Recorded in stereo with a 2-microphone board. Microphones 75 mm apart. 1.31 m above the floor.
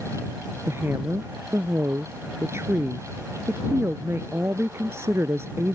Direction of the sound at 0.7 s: 35° right (ahead or behind).